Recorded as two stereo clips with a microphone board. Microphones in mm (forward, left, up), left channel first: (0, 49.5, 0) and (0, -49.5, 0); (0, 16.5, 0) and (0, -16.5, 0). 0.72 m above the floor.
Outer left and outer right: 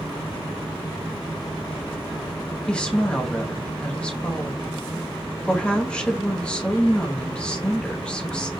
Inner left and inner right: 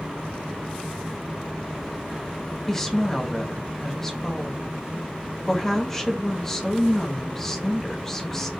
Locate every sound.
2.7 s a woman speaking: 10° left (ahead or behind), 0.8 m